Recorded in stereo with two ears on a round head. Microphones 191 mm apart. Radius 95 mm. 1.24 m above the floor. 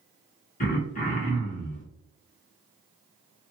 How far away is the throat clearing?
About 1.0 m.